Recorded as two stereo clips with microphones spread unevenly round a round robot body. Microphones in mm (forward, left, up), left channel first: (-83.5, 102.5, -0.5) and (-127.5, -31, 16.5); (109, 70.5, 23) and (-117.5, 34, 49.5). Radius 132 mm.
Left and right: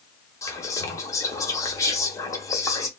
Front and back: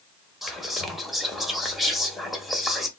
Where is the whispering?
90° left, 0.8 m.